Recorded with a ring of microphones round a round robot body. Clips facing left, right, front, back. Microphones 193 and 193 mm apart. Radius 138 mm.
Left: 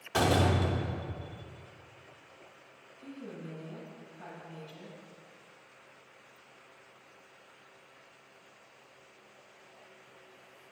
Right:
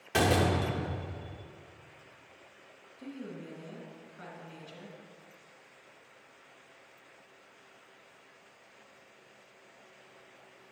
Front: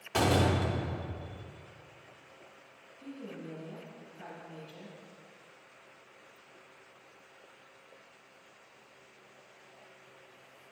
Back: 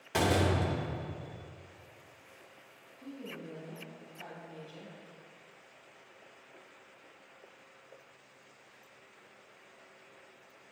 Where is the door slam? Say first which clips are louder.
Even, front 1 dB; 115° right, 0.6 m.